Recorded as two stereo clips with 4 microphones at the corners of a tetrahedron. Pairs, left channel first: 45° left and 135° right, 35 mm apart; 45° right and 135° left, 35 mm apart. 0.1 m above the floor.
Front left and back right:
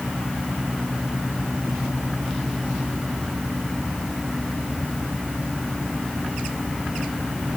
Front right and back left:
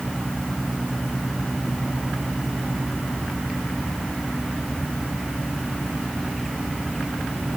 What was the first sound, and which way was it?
Only background noise.